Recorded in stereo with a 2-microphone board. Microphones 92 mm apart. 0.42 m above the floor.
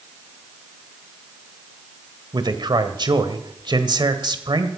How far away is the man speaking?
About 1.5 m.